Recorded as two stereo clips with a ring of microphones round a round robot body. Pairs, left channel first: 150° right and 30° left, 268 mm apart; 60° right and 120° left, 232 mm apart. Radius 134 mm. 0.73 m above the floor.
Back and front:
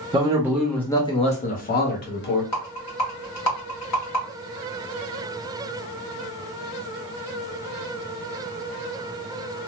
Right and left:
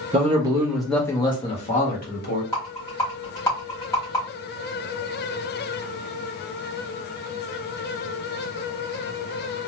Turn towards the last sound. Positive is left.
turn(degrees=-135)